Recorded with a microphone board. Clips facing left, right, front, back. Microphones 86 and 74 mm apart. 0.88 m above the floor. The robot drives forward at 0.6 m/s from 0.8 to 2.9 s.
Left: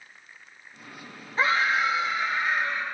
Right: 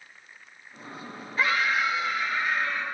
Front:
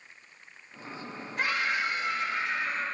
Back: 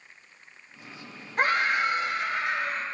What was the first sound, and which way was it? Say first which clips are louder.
A scream: left 2 dB, back 5 dB; 145° left.